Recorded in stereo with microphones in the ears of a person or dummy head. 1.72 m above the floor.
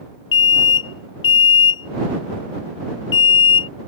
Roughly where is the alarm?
Left.